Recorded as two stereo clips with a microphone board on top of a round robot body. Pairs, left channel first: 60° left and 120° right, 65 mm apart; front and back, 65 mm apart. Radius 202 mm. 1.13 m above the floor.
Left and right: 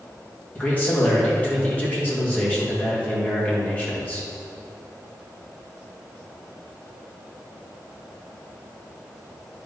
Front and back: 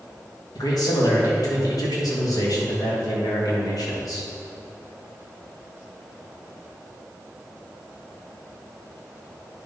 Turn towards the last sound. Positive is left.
turn(degrees=-10)